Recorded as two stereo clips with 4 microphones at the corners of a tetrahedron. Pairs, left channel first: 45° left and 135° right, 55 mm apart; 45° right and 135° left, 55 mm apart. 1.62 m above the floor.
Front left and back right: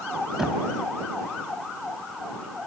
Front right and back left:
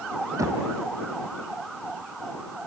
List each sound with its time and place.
0.4 s knocking: 140° left